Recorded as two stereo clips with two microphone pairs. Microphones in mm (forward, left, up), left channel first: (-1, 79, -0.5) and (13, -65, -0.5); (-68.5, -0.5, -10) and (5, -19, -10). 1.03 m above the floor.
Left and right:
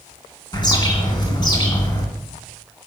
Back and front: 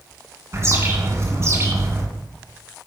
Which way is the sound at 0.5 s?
35° left.